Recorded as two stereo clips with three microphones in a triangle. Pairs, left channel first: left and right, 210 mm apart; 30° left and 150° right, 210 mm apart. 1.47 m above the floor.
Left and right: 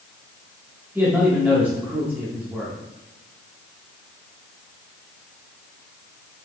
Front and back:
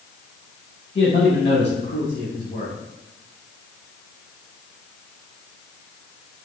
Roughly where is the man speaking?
Ahead.